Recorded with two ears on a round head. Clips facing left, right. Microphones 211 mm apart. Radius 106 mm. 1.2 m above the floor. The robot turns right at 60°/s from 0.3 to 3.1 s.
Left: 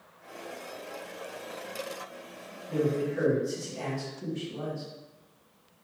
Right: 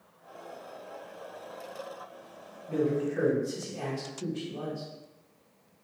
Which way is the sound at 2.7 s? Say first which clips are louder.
Even; 65° right (ahead or behind).